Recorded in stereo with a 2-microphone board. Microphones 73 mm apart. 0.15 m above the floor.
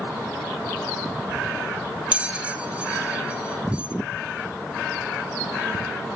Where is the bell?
15° right (ahead or behind), 0.6 m.